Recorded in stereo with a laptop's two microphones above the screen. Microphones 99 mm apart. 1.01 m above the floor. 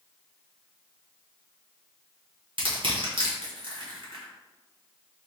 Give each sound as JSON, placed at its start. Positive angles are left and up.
{"t": 2.6, "sound": "crushing", "side_deg": -55, "distance_m": 1.3}